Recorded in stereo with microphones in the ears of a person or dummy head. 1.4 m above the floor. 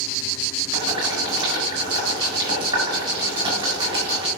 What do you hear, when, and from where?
0.7 s boiling: 25° right (ahead or behind), 8 m